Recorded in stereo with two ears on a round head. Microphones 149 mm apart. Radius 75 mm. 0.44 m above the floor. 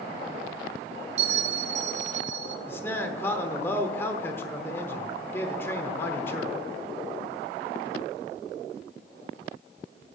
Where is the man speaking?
15° left (ahead or behind), 0.9 m.